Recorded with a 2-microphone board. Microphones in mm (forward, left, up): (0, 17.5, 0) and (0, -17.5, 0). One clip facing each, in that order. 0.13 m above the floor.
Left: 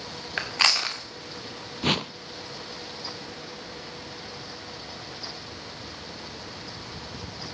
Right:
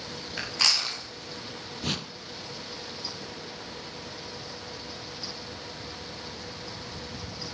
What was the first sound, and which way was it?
Chewing, 40° left (ahead or behind).